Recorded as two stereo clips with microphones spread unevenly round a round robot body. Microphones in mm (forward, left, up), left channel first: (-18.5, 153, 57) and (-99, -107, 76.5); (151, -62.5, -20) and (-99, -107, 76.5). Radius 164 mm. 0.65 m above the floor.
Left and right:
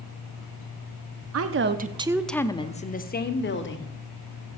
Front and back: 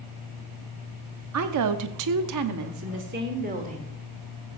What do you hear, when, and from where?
1.3 s a woman speaking: 135° right, 1.0 m; by 3.9 s 115° left, 2 m